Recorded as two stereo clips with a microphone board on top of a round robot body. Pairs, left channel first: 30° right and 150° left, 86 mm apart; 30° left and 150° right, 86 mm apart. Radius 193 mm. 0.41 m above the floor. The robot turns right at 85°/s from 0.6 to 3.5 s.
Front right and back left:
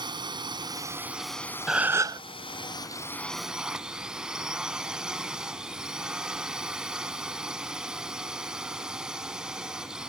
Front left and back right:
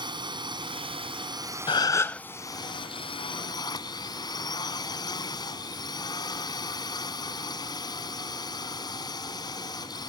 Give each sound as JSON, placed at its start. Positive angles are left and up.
{"t": 0.0, "sound": "a drone", "azimuth_deg": 180}
{"t": 1.7, "sound": "a gasp", "azimuth_deg": 65}